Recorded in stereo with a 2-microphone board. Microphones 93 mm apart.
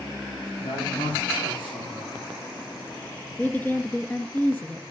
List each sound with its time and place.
0.6 s a man speaking: 70° left (ahead or behind), 7.5 m
3.4 s a woman speaking: 20° left (ahead or behind), 1.3 m